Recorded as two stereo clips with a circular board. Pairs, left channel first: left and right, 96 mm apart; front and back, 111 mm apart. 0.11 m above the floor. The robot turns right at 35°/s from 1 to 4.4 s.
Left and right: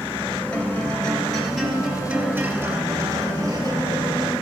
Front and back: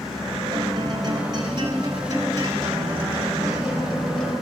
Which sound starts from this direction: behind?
A guitar, at 0.5 s.